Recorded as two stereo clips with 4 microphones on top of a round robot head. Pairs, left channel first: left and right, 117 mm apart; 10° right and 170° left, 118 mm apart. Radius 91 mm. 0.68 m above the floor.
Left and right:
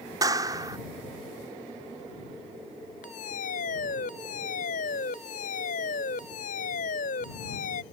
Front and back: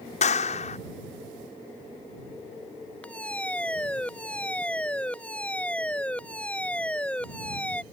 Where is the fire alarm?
70° left.